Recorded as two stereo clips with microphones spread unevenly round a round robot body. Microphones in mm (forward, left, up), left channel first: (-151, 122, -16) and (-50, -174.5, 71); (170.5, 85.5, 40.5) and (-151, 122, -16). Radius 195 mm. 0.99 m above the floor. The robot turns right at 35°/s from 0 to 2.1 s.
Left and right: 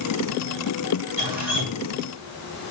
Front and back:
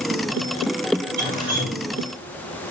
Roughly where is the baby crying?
No baby crying in this recording.